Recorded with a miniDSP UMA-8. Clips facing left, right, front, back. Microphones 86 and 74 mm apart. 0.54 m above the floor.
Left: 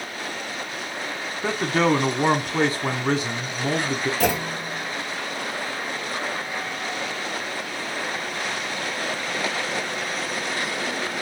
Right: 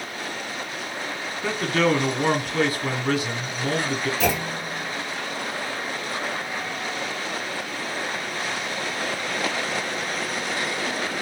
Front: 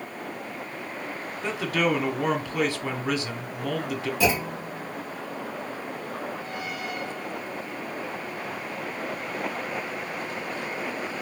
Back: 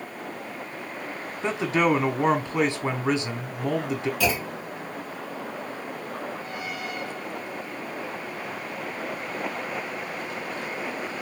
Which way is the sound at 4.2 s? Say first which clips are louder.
Left 1 dB, front 2 dB; 60° left.